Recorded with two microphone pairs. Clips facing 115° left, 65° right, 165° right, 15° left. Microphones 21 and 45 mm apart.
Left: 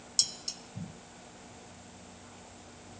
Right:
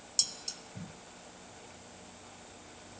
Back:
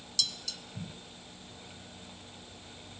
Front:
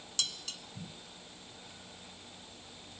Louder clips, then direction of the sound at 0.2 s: Left 2 dB, back 1 dB; 50° left.